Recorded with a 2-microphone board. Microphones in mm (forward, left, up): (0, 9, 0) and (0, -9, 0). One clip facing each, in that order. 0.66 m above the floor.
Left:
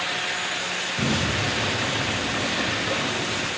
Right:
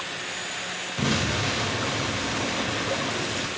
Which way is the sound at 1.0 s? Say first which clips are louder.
Even; 30° right (ahead or behind).